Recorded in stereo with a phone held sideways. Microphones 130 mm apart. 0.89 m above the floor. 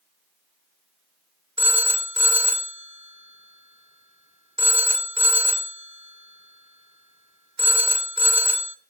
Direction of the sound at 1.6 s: 45° right (ahead or behind).